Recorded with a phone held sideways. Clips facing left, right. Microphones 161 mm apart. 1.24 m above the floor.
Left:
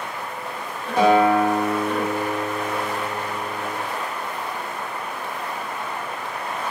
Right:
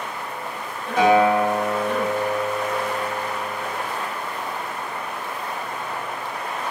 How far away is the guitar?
About 0.9 m.